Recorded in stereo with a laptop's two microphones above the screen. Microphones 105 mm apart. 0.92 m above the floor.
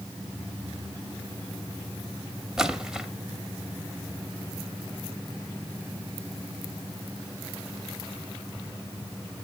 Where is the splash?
5° right (ahead or behind), 0.9 m.